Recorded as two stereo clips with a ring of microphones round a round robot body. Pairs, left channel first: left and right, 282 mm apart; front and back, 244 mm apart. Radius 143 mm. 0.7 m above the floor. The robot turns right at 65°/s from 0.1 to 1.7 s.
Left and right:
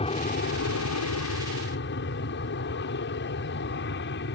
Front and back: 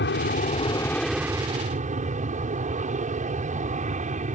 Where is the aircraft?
25° left; by 4.3 s 130° left.